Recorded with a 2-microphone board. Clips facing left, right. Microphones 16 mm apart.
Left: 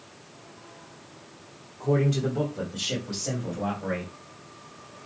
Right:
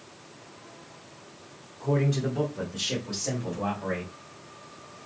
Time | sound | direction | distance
1.8 | a man speaking | 20° left (ahead or behind) | 1.4 m